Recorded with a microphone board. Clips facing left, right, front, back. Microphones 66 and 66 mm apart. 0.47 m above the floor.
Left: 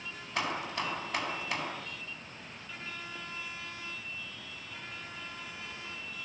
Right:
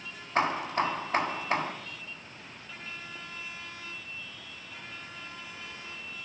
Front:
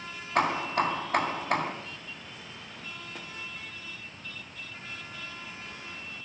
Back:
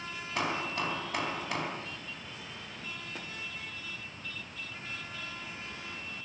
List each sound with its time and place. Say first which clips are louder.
0.3 s hammering: right 7 dB, front 7 dB; 35° right, 3 m